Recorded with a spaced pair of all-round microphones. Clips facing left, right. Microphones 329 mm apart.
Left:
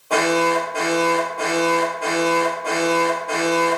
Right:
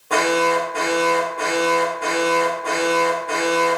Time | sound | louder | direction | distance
0.1 | an alarm | even | 25° right (ahead or behind) | 1.6 m